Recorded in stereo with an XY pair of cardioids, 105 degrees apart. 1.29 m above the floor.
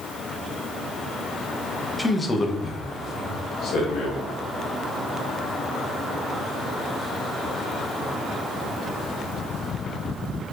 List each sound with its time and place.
2.0 s a man speaking: 5° left, 0.8 m; by 4.3 s 70° left, 2 m